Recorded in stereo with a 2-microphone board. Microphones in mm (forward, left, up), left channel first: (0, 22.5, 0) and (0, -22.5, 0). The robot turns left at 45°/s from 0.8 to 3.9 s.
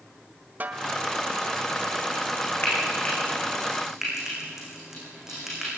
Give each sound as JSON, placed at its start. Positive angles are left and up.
{"t": 0.6, "sound": "a snare drum", "side_deg": -40, "distance_m": 1.7}
{"t": 2.6, "sound": "frying", "side_deg": 45, "distance_m": 9.0}